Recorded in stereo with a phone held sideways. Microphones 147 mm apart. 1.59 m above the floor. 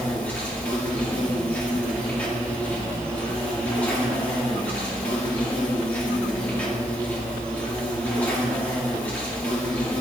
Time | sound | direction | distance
0.0 | an insect | 10° left (ahead or behind) | 3 m